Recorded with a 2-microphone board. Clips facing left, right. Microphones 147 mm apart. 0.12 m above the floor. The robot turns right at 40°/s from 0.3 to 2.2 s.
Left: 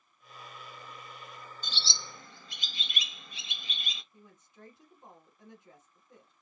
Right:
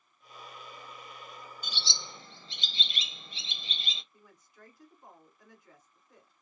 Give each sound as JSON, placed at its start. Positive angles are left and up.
{"t": 1.6, "sound": "a bird", "side_deg": -10, "distance_m": 0.6}
{"t": 4.1, "sound": "a woman speaking", "side_deg": 25, "distance_m": 1.3}